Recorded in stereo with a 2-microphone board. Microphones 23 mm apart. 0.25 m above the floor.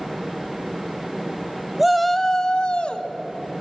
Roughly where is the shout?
Centre.